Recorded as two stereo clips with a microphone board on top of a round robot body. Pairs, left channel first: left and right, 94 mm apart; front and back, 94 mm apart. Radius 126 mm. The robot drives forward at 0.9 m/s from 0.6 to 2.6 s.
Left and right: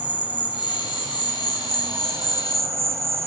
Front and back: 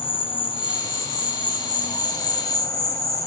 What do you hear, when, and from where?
0.0 s an insect: 20° right, 3.5 m; by 3.3 s 35° right, 2 m